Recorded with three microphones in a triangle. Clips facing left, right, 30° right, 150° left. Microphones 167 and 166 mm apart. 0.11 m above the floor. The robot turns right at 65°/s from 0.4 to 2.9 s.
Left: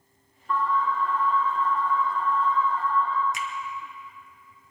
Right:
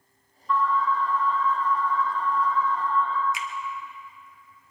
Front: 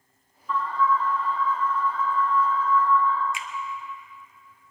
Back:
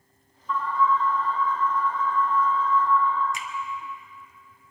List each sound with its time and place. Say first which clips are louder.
0.5 s an alarm: right 1 dB, even; 60° left, 3.5 m; by 3.2 s 145° right, 3.5 m
3.3 s a finger snap: left 1 dB, back 1 dB; 115° left, 1.7 m